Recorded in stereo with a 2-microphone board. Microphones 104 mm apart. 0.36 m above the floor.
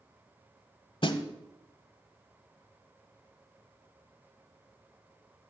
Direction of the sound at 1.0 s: 55° left (ahead or behind).